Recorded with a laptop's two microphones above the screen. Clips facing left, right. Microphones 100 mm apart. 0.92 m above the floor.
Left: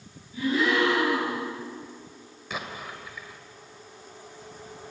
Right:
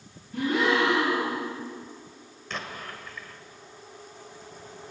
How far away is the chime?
No chime in this recording.